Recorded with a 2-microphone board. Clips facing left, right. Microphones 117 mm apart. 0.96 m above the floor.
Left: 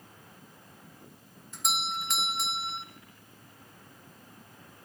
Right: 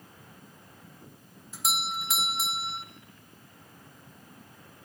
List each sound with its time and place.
1.5 s a doorbell: 5° right (ahead or behind), 1.1 m